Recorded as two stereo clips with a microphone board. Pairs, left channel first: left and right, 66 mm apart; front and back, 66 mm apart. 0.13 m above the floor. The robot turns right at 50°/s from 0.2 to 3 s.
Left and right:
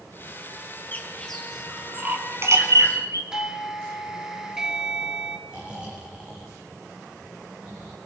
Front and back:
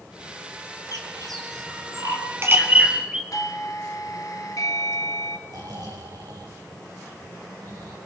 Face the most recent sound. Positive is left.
turn(degrees=-165)